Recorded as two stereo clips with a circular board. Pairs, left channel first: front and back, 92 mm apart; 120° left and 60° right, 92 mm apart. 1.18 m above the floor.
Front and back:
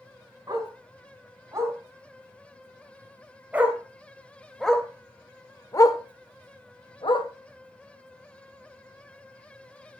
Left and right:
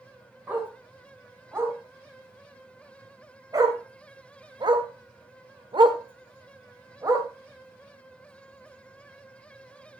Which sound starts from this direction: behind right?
A dog barking, at 0.5 s.